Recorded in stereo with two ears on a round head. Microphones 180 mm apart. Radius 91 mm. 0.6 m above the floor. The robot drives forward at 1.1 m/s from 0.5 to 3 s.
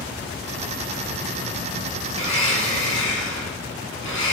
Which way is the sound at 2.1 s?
85° left.